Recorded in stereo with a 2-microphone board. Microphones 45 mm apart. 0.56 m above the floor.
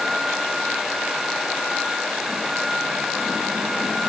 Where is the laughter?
I don't hear laughter.